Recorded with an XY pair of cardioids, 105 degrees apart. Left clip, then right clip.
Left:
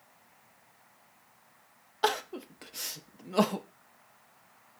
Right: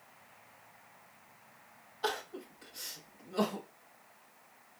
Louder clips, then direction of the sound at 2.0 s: Left 7 dB; 70° left.